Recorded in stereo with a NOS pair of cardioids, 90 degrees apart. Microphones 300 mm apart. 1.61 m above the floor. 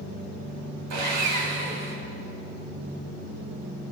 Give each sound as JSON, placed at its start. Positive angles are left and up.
{"t": 0.9, "sound": "sawing", "azimuth_deg": -70, "distance_m": 2.0}